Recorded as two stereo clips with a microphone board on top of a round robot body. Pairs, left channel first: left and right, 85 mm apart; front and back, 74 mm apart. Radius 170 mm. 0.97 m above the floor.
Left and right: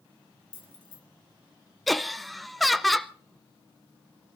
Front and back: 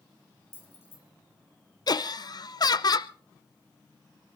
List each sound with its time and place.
0.5 s keys jangling: 65° left, 4 m
1.9 s laughter: straight ahead, 0.9 m